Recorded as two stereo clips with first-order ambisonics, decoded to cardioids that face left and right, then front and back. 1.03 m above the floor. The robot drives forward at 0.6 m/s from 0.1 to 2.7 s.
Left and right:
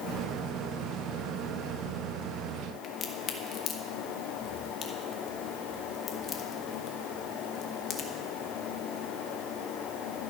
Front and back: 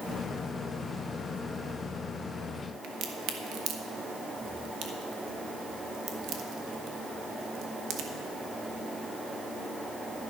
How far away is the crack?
About 1.1 m.